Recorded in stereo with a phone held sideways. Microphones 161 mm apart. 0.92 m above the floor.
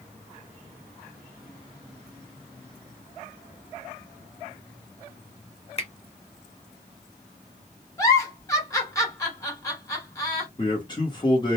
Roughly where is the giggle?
Centre.